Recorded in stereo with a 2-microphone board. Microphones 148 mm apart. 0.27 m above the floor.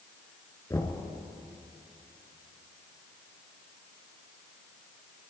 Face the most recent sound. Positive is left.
turn(degrees=20)  # may be behind; listen again after turning